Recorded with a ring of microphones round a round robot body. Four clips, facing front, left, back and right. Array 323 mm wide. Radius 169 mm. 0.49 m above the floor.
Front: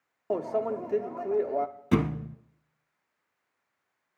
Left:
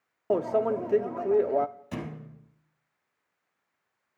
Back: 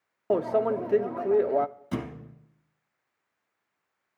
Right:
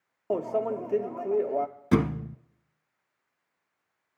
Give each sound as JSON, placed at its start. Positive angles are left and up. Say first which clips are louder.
{"t": 0.3, "sound": "a microwave", "louder": "left 3 dB, back 4 dB", "azimuth_deg": 155, "distance_m": 0.5}
{"t": 1.9, "sound": "a thud", "louder": "right 12 dB, front 7 dB", "azimuth_deg": -55, "distance_m": 0.7}